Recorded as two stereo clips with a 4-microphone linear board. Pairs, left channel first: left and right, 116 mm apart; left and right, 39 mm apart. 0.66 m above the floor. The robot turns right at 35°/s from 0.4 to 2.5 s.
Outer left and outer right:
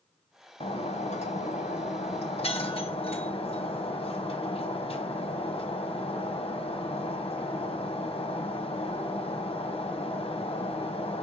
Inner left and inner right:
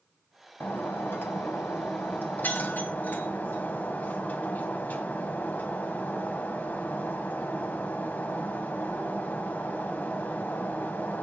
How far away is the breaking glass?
About 1.6 m.